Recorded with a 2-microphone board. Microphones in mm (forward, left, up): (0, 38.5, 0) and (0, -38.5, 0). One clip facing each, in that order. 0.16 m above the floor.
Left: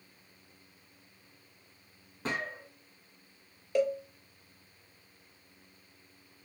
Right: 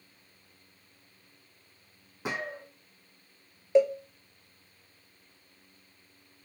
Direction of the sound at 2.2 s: 10° right (ahead or behind).